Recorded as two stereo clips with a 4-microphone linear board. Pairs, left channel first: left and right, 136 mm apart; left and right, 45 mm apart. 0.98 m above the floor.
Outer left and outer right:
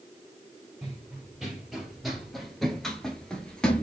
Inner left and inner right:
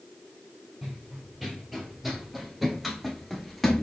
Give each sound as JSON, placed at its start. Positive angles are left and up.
{"t": 0.8, "sound": "running footsteps", "side_deg": -5, "distance_m": 1.4}